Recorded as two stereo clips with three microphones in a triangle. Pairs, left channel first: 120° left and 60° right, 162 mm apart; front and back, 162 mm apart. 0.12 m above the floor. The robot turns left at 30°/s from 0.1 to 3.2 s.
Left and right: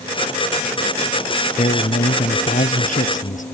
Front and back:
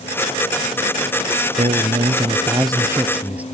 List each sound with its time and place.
1.6 s a man speaking: 150° left; by 3.4 s 100° left